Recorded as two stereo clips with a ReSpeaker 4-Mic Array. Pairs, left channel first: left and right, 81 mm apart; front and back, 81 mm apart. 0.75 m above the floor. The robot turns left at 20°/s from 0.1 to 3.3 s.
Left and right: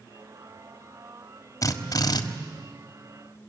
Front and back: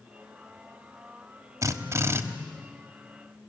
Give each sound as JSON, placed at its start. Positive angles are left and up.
{"t": 1.6, "sound": "a drill", "azimuth_deg": 135, "distance_m": 1.4}